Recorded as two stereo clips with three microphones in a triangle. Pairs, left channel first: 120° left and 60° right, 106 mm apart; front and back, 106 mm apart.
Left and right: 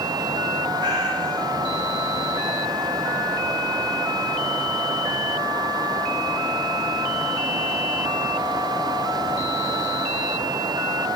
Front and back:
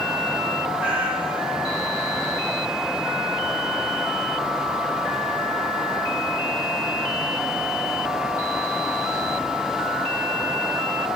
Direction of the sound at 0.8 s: 105° right.